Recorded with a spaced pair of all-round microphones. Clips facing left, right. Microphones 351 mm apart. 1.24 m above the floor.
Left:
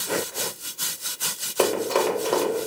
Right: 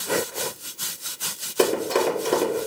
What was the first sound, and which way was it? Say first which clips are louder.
Running footsteps: right 1 dB; 25° right (ahead or behind).